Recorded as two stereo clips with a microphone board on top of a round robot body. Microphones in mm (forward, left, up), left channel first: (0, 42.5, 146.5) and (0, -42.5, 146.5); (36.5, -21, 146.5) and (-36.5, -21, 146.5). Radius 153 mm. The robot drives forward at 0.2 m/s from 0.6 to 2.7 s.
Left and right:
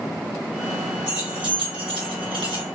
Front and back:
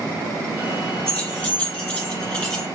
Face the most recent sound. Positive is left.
turn(degrees=-85)